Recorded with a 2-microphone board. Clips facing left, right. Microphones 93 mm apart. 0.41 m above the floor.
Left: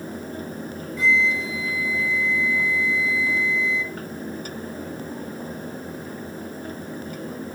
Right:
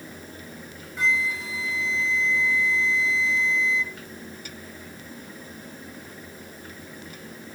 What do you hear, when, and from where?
1.0 s a flute: 70° right (ahead or behind), 0.8 m